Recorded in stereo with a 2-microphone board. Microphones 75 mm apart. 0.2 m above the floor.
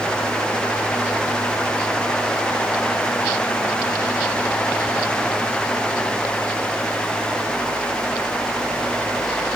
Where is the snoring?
No snoring in this recording.